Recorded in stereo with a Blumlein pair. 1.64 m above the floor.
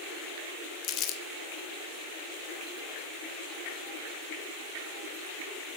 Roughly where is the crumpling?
Ahead left.